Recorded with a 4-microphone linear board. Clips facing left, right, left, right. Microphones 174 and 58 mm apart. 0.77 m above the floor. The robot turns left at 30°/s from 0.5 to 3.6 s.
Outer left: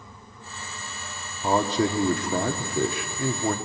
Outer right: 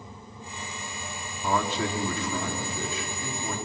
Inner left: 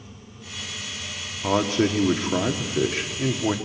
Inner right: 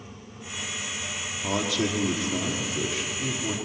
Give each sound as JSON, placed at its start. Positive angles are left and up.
{"t": 1.4, "sound": "a man speaking", "azimuth_deg": 145, "distance_m": 1.9}